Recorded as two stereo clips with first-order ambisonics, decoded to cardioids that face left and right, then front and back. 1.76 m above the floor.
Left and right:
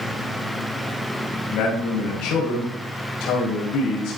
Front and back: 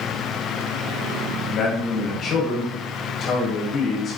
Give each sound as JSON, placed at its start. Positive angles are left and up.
{"t": 1.5, "sound": "a man speaking", "azimuth_deg": 60, "distance_m": 1.7}